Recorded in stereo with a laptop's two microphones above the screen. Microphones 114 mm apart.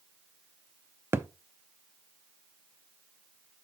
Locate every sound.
1.1 s a thud: 20° right (ahead or behind), 0.6 m